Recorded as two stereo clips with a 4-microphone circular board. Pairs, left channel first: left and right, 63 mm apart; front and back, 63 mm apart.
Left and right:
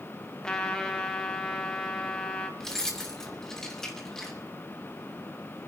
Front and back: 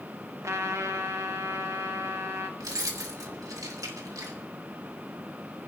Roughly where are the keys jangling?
Behind.